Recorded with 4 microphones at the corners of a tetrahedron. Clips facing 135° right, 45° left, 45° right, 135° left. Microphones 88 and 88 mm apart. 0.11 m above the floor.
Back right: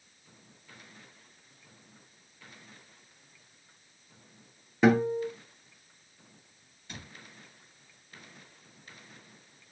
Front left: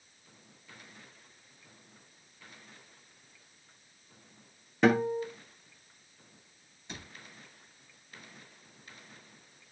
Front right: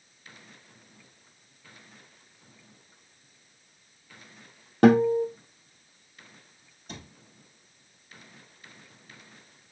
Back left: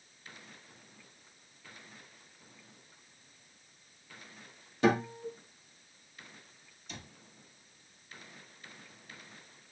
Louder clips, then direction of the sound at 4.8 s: Back right 2 dB, front right 10 dB; 45° right.